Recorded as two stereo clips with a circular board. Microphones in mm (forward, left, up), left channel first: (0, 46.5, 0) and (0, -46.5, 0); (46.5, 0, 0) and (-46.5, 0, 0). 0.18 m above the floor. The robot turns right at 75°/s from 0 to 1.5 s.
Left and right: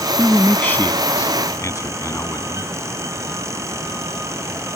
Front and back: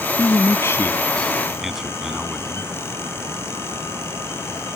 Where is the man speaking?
5° right; by 2.7 s 95° left.